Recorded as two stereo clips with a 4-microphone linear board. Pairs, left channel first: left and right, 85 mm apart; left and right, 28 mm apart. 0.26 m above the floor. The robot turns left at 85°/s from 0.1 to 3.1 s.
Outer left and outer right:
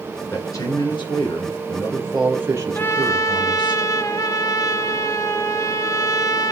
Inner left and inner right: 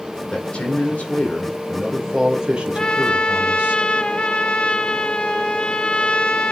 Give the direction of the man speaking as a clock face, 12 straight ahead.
7 o'clock.